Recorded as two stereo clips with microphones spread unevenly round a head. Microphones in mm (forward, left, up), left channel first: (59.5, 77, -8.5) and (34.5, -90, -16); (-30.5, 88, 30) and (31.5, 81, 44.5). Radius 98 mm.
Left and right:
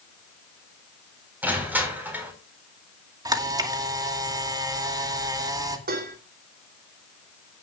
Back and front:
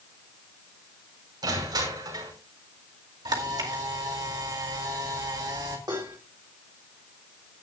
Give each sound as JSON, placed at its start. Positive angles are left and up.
{"t": 1.4, "sound": "crushing", "azimuth_deg": -20, "distance_m": 5.0}
{"t": 3.2, "sound": "a camera shutter", "azimuth_deg": -30, "distance_m": 2.0}
{"t": 5.9, "sound": "dishes clattering", "azimuth_deg": -70, "distance_m": 3.0}